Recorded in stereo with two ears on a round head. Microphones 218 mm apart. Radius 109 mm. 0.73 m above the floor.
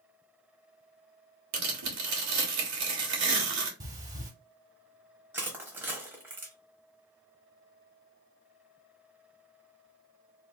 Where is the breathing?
15° right (ahead or behind), 0.6 m.